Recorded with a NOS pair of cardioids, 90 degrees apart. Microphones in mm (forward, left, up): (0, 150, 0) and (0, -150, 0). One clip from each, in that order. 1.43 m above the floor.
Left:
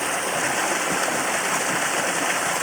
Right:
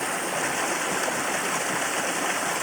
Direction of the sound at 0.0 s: 25° left.